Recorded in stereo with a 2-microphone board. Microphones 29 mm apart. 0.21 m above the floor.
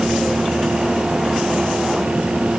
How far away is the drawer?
I don't hear a drawer.